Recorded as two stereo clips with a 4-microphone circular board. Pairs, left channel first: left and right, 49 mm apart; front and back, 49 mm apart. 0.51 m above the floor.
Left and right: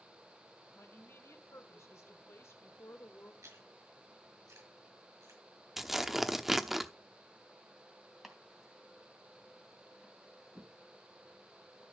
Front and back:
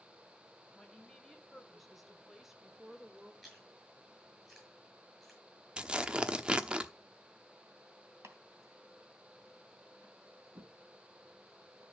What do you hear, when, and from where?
0.8 s a woman speaking: 80° left, 3 m; by 3.3 s 105° left, 1.6 m
3.4 s chewing: 95° right, 7 m
5.8 s tearing paper: 165° right, 0.8 m
8.2 s chopping: 175° right, 3 m